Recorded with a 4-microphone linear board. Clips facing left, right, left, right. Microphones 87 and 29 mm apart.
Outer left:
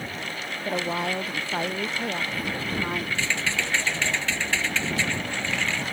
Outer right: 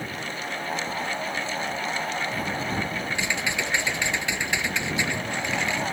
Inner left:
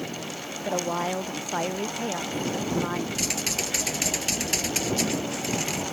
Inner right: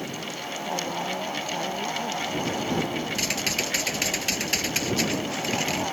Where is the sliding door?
I don't hear a sliding door.